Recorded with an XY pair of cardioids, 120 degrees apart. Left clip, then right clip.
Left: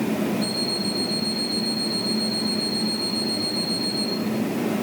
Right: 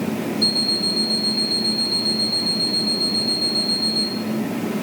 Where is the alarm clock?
55° right, 3 m.